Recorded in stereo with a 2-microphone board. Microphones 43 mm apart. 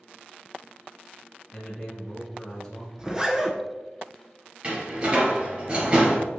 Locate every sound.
1.5 s a man speaking: 10° left (ahead or behind), 1.2 m
3.0 s a zipper: 15° right (ahead or behind), 0.6 m
4.6 s a door slam: 30° right (ahead or behind), 1.9 m